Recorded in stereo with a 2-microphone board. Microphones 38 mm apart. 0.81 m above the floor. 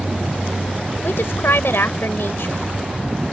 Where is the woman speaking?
80° left.